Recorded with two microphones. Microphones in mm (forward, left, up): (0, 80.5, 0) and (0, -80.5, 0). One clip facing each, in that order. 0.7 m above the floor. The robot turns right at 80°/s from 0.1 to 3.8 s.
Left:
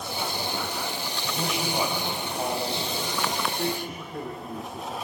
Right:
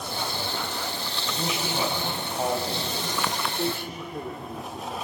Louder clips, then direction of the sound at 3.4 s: Even; 35° right.